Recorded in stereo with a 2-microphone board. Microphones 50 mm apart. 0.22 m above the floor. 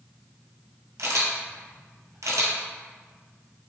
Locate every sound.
1.0 s a camera shutter: 80° right, 1.0 m